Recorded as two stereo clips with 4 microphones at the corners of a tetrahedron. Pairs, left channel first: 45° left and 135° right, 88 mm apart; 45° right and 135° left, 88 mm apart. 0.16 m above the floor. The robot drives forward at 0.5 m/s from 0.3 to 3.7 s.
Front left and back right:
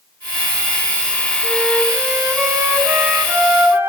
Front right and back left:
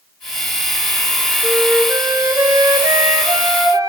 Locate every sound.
1.4 s a flute: 135° left, 1.1 m; by 3.9 s 165° left, 1.9 m